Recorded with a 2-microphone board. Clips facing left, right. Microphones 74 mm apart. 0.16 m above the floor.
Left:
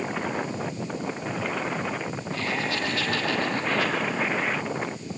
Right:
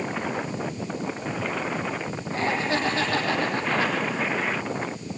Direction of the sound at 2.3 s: 30° right (ahead or behind).